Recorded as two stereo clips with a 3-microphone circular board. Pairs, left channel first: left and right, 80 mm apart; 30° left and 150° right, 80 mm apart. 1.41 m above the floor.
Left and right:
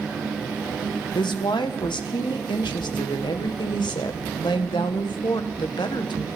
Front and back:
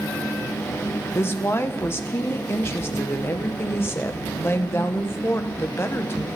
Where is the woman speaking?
85° left, 1.0 m.